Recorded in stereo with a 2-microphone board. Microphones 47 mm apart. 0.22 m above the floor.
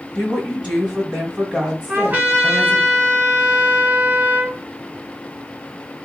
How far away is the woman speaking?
About 1.8 m.